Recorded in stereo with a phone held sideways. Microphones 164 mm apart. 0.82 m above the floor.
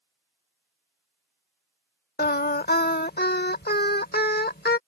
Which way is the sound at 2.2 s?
65° left (ahead or behind).